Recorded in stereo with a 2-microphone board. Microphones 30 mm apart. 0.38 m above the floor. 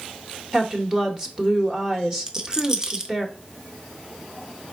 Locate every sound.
0.5 s a woman speaking: 20° right (ahead or behind), 0.9 m
2.3 s a rattle: 20° right (ahead or behind), 0.6 m